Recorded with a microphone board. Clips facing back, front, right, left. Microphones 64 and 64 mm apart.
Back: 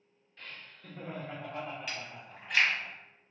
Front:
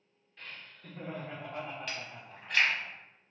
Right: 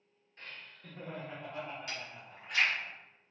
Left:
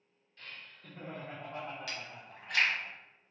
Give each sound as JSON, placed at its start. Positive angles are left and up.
{"t": 0.4, "sound": "laughter", "azimuth_deg": -85, "distance_m": 0.9}
{"t": 1.9, "sound": "chewing", "azimuth_deg": 95, "distance_m": 1.2}